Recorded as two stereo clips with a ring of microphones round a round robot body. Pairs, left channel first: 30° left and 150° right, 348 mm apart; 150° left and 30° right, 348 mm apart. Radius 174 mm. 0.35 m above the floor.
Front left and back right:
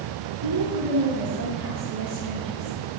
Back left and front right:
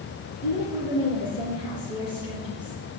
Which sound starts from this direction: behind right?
A woman speaking, at 0.4 s.